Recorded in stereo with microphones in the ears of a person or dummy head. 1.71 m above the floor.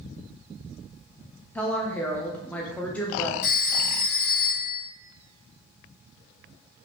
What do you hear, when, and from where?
1.6 s a woman speaking: 10° left (ahead or behind), 0.5 m
3.4 s a phone ringing: 40° left (ahead or behind), 1.5 m